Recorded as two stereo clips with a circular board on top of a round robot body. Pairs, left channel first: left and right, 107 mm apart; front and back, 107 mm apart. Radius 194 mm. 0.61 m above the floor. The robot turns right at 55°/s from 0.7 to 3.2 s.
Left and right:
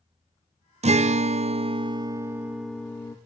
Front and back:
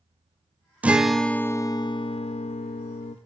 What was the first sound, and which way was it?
A guitar, 105° right.